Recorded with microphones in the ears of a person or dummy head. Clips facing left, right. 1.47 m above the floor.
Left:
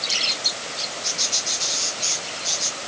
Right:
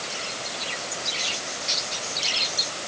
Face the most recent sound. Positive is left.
No sound to turn to.